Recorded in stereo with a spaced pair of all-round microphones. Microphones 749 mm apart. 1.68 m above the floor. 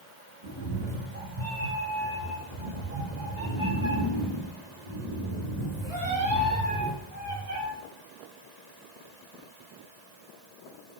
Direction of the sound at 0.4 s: 60° right (ahead or behind).